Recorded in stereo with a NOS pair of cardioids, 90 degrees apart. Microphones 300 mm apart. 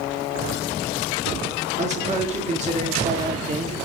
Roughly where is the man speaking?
Ahead right.